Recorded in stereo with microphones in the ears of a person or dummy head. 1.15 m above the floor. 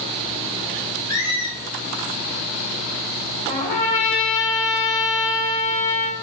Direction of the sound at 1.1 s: 40° left (ahead or behind).